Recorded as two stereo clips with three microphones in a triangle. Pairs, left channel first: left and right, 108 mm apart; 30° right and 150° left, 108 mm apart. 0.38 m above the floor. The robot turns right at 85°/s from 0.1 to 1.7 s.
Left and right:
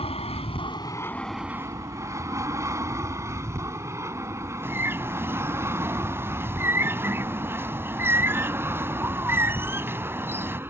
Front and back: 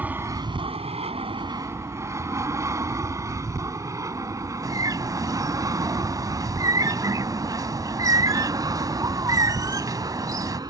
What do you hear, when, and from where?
0.0 s an aircraft: 75° left; by 10.7 s 160° right
4.6 s a bird: 155° right